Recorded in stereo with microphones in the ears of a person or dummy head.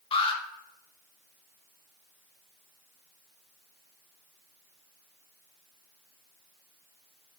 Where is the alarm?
30° left (ahead or behind), 1.6 m.